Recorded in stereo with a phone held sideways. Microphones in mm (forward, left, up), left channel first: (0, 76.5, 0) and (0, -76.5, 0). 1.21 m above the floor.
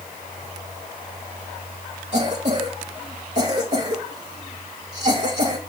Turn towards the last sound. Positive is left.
turn(degrees=-45)  # may be behind; listen again after turning